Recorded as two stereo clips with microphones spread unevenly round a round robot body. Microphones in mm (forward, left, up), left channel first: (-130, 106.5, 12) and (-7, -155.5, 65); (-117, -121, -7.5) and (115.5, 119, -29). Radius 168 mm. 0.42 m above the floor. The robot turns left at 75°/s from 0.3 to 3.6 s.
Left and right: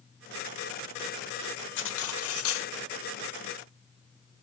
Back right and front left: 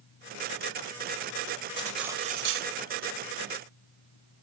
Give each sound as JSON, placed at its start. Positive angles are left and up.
{"t": 1.8, "sound": "cutlery clinking", "azimuth_deg": 150, "distance_m": 1.1}